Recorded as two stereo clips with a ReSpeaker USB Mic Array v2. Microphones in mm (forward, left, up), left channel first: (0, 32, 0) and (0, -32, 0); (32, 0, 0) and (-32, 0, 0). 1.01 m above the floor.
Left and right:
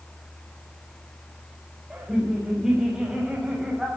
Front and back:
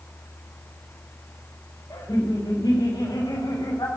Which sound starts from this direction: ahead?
Laughter, at 1.9 s.